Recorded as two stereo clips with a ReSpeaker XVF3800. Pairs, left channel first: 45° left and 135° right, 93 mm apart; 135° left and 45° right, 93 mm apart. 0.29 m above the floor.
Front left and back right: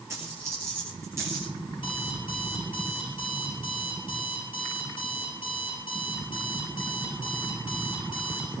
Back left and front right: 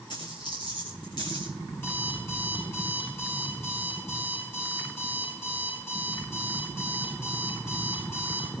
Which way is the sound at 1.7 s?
70° left.